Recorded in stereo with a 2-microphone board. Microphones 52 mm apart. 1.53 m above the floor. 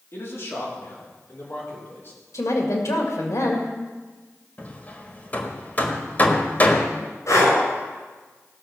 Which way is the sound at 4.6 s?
35° left (ahead or behind).